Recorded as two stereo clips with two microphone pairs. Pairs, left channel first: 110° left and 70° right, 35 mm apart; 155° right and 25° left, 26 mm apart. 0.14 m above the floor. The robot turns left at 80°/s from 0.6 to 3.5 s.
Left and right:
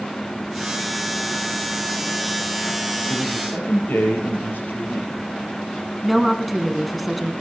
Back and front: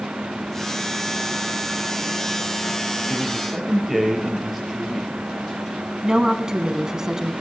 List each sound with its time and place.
3.1 s a man speaking: 140° left, 4 m; by 5.1 s 110° left, 4 m
6.0 s a woman speaking: 10° left, 1.1 m